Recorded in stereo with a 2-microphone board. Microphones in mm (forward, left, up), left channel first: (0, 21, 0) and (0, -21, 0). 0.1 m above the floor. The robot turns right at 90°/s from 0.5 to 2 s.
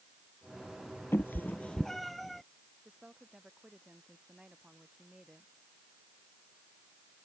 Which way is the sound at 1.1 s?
65° left (ahead or behind).